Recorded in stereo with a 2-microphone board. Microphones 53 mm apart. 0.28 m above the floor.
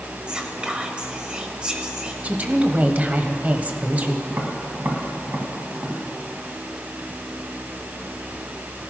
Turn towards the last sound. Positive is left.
turn(degrees=-45)  # may be behind; listen again after turning